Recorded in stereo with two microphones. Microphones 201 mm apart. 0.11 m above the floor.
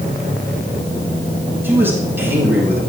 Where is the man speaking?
10° right (ahead or behind), 5.5 m.